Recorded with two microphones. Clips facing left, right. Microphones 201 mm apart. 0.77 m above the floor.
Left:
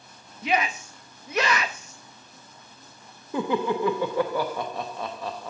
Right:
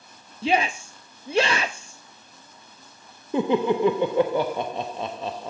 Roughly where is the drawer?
I don't hear a drawer.